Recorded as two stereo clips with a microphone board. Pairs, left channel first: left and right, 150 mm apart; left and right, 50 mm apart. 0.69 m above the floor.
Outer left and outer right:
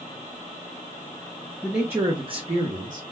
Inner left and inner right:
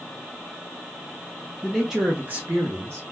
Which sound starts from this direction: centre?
A man speaking, at 1.6 s.